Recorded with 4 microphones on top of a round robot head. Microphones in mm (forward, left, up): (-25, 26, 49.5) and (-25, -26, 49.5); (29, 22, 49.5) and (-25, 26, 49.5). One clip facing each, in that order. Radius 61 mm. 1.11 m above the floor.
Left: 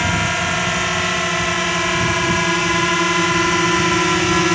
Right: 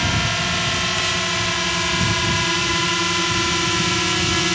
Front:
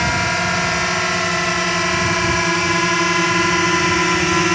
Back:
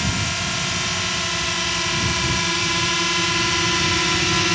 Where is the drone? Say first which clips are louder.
Left 3 dB, front 7 dB; 25° left; by 4.5 s 40° left.